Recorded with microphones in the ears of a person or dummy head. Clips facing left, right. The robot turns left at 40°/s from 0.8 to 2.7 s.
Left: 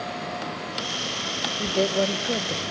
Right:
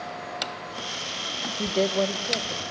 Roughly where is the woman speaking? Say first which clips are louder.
Left 1 dB; behind.